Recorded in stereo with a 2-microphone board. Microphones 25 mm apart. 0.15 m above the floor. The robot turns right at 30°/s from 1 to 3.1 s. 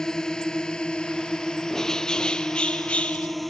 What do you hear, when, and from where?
0.0 s a drone: 25° left (ahead or behind); by 3.5 s 5° left (ahead or behind)
1.7 s a bird: 20° left; by 3.4 s 60° left